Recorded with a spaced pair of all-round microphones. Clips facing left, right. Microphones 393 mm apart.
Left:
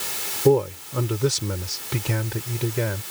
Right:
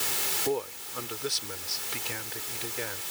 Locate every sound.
0.5 s a man speaking: 85° left; by 3.0 s 75° left (ahead or behind)